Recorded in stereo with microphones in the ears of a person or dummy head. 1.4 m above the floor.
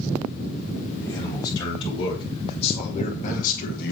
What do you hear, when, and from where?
1.0 s a man speaking: 20° left (ahead or behind), 3.5 m; by 3.9 s 55° left (ahead or behind), 1.9 m